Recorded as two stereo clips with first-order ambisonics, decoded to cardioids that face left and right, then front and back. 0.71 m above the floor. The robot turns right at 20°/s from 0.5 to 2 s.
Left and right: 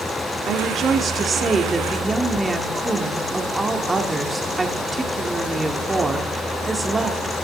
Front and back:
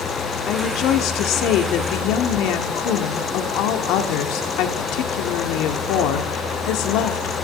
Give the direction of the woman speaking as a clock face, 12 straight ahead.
1 o'clock.